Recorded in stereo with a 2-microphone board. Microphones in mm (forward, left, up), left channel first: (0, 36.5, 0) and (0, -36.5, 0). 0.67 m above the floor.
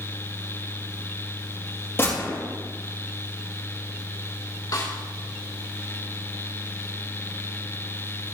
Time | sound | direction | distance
2.0 | a gunshot | 35° left (ahead or behind) | 5.5 m
4.7 | a snare drum | 60° left (ahead or behind) | 2.5 m